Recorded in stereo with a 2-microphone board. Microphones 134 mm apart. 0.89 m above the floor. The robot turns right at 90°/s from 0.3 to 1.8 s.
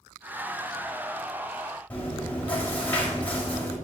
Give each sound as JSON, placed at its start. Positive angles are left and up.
{"t": 1.9, "sound": "chewing", "side_deg": 10, "distance_m": 5.0}